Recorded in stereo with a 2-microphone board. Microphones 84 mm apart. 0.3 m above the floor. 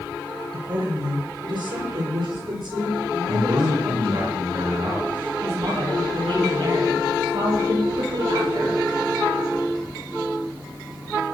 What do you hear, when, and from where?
0.5 s a woman speaking: 65° right (ahead or behind), 5.5 m; by 4.3 s 75° right (ahead or behind), 8 m
3.3 s a man speaking: 70° right (ahead or behind), 3.5 m
5.4 s a woman speaking: 80° right, 9 m